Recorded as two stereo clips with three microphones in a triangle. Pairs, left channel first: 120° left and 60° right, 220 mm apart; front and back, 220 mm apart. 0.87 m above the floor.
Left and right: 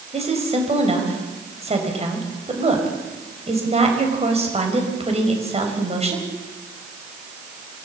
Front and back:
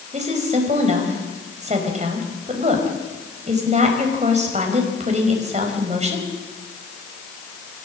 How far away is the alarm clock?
I don't hear an alarm clock.